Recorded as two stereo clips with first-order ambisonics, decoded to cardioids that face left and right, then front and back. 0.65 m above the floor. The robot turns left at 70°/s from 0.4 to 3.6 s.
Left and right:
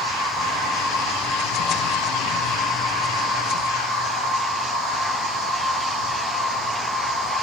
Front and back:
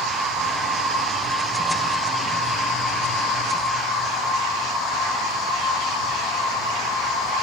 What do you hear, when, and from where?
0.0 s an insect: straight behind, 4 m; by 7.4 s 45° right, 4 m